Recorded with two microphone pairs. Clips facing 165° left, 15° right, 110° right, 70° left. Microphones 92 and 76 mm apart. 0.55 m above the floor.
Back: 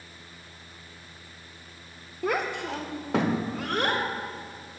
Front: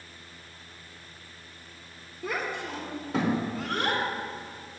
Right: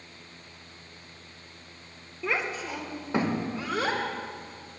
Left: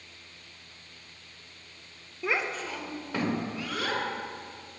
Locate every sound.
2.2 s a child speaking: 150° left, 0.7 m; by 4.8 s 160° right, 1.7 m